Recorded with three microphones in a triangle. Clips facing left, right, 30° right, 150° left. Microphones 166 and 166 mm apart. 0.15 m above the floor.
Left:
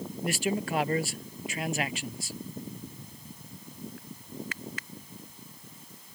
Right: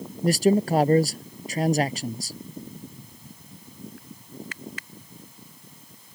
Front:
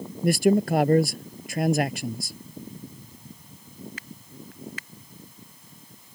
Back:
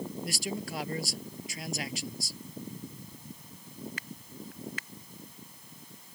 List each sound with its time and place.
0.2 s a man speaking: 45° right